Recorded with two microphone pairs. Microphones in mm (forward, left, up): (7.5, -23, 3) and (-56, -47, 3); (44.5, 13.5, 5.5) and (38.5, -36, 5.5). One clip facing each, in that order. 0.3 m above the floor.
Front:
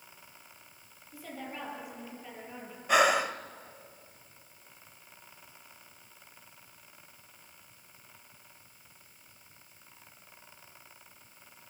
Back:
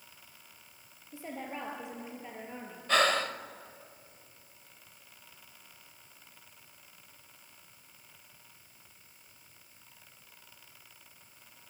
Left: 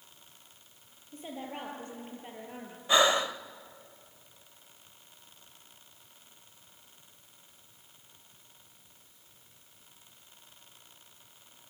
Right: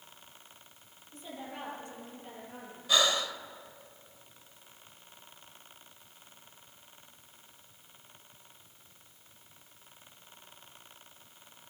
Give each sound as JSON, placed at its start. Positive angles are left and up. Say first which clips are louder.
{"t": 1.1, "sound": "a woman speaking", "louder": "back 2 dB, left 3 dB", "azimuth_deg": 135, "distance_m": 6.5}
{"t": 2.9, "sound": "breathing", "louder": "front 3 dB, left 4 dB", "azimuth_deg": 85, "distance_m": 0.6}